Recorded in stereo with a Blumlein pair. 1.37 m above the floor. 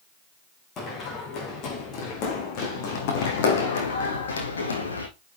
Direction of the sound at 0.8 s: 30° left.